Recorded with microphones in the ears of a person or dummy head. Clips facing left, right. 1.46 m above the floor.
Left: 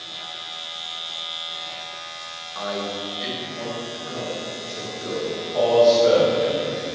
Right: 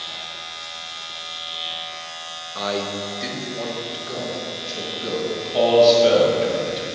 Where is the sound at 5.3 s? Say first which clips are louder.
Right 2 dB; 45° right (ahead or behind), 2 m.